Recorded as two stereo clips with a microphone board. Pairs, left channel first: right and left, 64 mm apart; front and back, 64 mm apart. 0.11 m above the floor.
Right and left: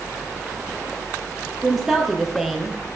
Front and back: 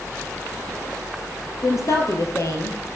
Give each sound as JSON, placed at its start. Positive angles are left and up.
{"t": 1.6, "sound": "a woman speaking", "azimuth_deg": 5, "distance_m": 2.5}